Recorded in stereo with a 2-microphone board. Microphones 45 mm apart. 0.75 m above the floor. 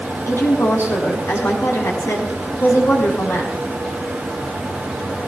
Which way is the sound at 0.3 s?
80° left.